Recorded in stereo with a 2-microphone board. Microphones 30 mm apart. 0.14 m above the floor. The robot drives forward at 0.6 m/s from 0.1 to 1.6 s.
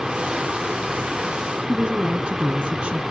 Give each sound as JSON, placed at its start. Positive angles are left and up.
{"t": 1.7, "sound": "a woman speaking", "side_deg": -35, "distance_m": 1.3}